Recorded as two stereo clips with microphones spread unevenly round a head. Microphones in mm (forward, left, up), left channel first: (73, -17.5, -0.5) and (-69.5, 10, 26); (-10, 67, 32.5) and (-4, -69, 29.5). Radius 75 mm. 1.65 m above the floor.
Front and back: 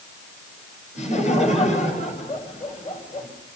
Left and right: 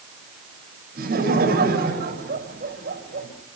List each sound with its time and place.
0.9 s laughter: 60° right, 7 m